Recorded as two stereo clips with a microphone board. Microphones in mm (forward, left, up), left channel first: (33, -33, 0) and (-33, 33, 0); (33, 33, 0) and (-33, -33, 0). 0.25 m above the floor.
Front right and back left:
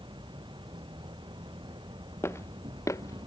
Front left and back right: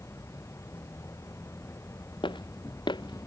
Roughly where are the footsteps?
Ahead.